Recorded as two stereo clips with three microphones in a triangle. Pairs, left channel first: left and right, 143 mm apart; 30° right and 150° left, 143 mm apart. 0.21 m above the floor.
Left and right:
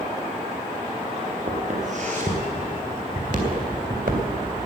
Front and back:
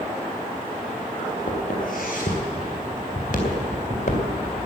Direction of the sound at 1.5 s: 55° right.